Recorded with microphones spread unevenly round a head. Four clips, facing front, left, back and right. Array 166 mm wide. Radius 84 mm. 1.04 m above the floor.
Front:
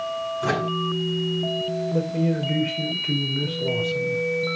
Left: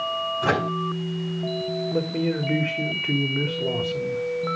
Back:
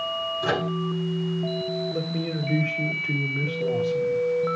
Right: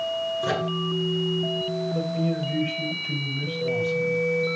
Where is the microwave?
70° left, 9 m.